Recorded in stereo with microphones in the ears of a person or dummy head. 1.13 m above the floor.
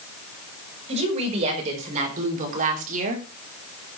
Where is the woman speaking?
40° right (ahead or behind), 5.5 m; by 3.3 s 45° right (ahead or behind), 3 m.